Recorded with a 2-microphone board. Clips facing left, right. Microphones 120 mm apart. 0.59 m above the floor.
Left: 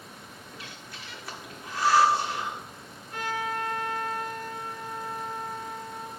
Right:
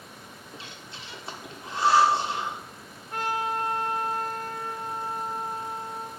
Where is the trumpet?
55° right (ahead or behind), 2 m.